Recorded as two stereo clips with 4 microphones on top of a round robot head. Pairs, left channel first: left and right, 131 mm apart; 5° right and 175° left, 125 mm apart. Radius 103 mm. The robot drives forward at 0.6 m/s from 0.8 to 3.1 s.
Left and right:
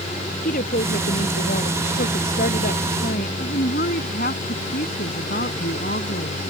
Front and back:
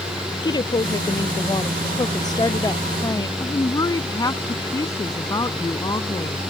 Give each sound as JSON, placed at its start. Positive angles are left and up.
{"t": 0.4, "sound": "a woman speaking", "azimuth_deg": 50}
{"t": 3.4, "sound": "a woman speaking", "azimuth_deg": 60}